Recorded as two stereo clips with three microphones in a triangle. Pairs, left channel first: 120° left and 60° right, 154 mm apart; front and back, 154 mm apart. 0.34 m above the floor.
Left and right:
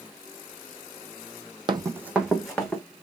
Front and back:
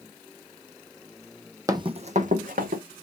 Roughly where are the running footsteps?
Right.